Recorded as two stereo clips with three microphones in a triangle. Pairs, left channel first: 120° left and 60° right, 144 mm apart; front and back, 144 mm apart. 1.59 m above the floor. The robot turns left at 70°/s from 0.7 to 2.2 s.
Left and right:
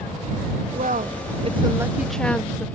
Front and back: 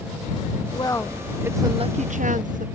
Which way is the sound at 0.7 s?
55° right.